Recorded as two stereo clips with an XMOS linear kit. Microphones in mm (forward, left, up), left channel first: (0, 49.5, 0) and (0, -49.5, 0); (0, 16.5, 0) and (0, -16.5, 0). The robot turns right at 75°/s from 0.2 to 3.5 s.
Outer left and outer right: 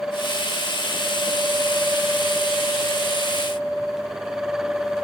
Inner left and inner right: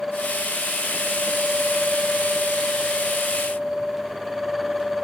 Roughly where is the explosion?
I don't hear an explosion.